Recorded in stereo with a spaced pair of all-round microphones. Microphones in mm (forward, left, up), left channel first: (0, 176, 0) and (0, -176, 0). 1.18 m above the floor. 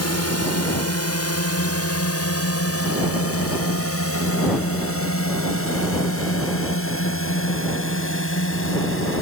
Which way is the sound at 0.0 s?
50° left (ahead or behind).